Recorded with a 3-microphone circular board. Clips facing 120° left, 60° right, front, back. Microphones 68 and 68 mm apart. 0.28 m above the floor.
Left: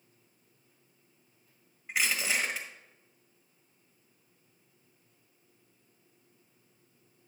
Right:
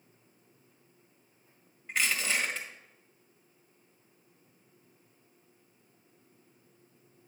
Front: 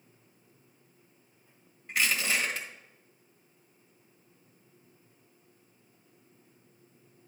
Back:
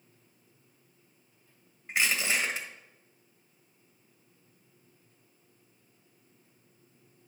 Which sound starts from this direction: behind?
Crushing, at 1.9 s.